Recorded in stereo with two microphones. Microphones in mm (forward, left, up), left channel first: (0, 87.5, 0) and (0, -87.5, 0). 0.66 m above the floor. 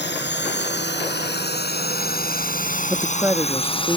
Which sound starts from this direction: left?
A drone, at 0.0 s.